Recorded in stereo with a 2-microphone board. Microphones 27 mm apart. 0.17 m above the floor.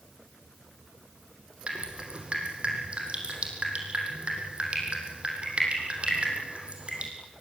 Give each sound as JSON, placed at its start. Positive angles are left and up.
{"t": 1.7, "sound": "dripping", "side_deg": -40, "distance_m": 5.5}